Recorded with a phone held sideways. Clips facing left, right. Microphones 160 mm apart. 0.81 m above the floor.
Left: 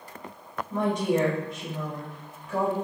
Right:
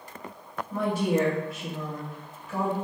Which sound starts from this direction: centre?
A woman speaking, at 0.7 s.